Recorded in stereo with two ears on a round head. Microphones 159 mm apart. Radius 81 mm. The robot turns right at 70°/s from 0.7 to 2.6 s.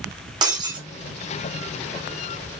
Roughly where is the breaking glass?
Right.